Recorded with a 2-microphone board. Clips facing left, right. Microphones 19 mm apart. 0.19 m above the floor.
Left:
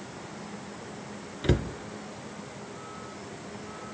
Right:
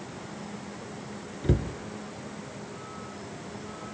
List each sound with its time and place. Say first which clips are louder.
1.4 s a cupboard door: left 1 dB; 40° left (ahead or behind), 1.1 m